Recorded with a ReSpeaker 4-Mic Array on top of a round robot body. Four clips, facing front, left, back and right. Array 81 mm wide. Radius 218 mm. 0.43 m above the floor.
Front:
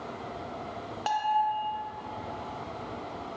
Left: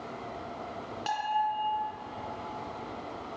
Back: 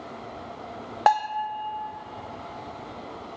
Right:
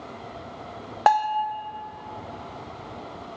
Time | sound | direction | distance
1.1 | a bell | 130° right | 0.7 m